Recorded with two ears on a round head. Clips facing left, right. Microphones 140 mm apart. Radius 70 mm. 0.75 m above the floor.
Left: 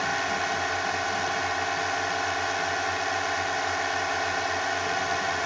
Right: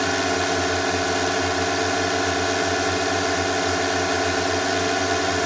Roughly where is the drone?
Right.